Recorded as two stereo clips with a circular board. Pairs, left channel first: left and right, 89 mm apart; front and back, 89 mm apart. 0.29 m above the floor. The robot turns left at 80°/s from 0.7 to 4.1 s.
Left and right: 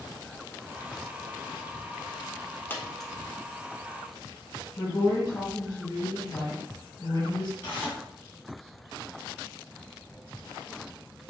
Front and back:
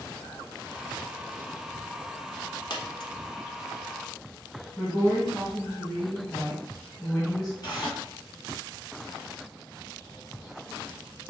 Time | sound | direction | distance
2.7 | a dropped coin | 25° left | 0.8 m
4.8 | a woman speaking | 65° left | 1.9 m
7.6 | tearing paper | 25° left | 2.5 m